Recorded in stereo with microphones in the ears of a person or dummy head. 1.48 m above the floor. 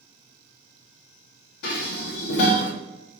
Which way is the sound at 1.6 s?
70° left (ahead or behind).